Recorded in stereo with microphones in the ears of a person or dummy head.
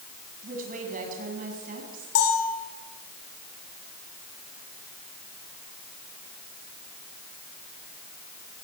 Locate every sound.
0.4 s a woman speaking: 45° right (ahead or behind), 7.5 m
2.1 s a bell: 65° left (ahead or behind), 7 m